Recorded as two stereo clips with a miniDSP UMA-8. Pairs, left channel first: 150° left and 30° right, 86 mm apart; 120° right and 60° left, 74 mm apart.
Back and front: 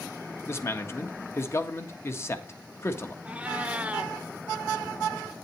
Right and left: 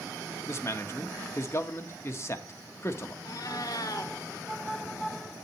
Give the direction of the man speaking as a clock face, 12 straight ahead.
5 o'clock.